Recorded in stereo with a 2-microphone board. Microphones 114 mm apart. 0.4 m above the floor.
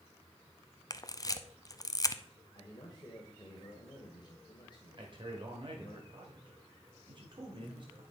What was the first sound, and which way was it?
A camera shutter, 30° left (ahead or behind).